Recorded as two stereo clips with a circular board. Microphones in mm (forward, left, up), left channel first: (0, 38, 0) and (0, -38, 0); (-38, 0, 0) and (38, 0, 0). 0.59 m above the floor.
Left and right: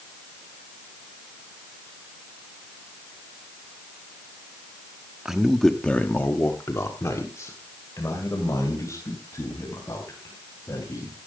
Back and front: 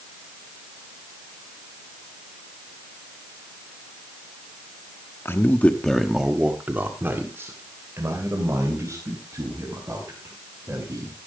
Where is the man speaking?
165° right, 1.2 m; by 11.2 s 45° left, 6 m.